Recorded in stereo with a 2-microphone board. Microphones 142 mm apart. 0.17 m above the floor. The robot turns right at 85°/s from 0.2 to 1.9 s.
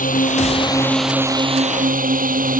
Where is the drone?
110° left; by 2.6 s 105° right.